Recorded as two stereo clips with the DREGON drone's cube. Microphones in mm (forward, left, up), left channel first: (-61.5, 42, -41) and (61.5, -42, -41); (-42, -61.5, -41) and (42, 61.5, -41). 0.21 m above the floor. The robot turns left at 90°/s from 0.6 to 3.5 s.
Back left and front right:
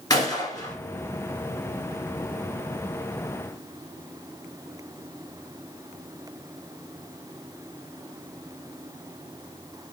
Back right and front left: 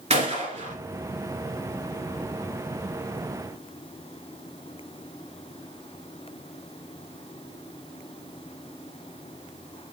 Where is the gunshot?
85° left, 1.8 m; by 0.7 s 75° left, 1.8 m.